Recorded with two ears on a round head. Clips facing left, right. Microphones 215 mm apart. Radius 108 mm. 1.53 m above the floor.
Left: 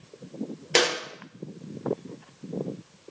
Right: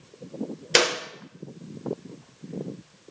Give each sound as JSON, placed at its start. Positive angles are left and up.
{"t": 0.8, "sound": "a clap", "side_deg": -15, "distance_m": 0.7}